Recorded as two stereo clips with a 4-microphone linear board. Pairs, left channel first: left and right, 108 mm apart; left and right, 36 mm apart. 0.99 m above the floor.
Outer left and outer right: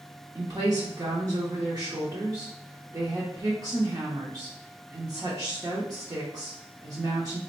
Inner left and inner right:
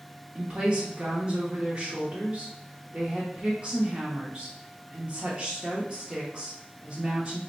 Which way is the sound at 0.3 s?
35° right (ahead or behind).